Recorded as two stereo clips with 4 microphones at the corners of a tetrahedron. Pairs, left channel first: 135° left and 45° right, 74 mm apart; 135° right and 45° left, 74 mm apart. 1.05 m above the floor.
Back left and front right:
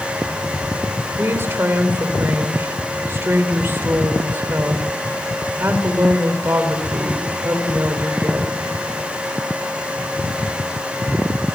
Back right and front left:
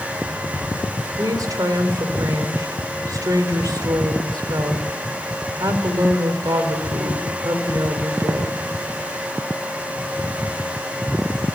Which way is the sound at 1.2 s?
10° left.